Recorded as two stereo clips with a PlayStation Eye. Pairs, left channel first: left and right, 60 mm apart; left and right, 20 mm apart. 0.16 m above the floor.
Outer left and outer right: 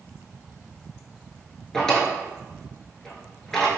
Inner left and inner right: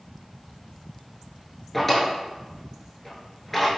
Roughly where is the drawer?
Centre.